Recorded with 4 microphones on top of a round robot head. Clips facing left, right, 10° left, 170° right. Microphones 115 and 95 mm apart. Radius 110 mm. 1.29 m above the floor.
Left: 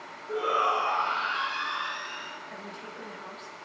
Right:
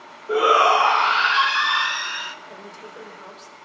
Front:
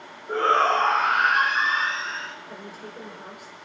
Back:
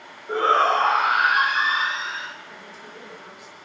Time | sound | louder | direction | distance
0.3 | a shout | right 10 dB, back 1 dB | 85° right | 0.8 m
2.5 | a woman speaking | right 2 dB, front 3 dB | 40° right | 4.5 m